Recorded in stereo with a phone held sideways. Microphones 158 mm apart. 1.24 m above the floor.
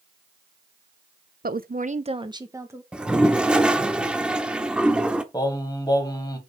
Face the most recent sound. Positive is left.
turn(degrees=25)  # may be behind; listen again after turning